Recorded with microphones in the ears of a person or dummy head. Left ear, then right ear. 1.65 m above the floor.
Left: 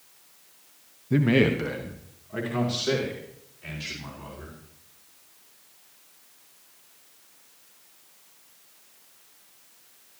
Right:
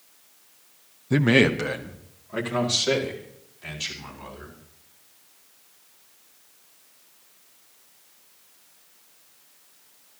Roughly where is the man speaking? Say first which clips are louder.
Right 3 dB; right.